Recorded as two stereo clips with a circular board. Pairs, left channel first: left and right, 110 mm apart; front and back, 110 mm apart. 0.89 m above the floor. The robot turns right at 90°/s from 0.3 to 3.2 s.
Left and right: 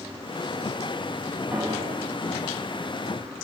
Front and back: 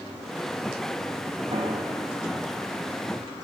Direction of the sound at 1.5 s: 165° right.